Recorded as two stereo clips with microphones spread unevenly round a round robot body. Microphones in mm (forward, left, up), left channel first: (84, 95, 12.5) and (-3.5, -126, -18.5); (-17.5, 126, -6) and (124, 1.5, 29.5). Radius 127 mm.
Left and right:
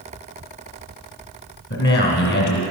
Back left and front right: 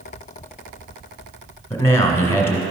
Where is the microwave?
No microwave in this recording.